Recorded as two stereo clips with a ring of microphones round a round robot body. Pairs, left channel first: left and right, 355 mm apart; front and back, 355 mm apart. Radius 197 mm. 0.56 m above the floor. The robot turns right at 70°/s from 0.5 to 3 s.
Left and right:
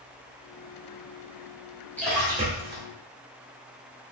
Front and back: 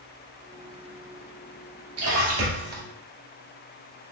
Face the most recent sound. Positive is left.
turn(degrees=-115)